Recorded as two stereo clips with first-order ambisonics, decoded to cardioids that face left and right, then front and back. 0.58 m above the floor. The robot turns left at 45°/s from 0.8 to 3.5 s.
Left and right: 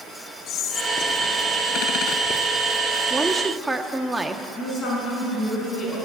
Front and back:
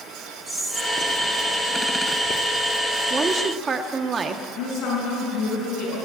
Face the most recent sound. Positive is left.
turn(degrees=45)